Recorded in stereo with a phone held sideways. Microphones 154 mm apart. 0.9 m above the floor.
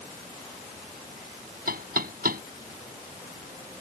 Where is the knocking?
75° right (ahead or behind).